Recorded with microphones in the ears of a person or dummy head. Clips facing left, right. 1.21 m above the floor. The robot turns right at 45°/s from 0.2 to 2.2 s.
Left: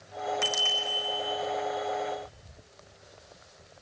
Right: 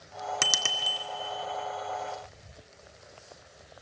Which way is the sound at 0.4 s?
65° right (ahead or behind).